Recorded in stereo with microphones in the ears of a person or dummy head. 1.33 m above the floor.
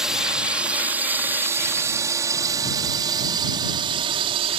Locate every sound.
0.0 s a drone: 5° right (ahead or behind); by 4.6 s 35° right (ahead or behind)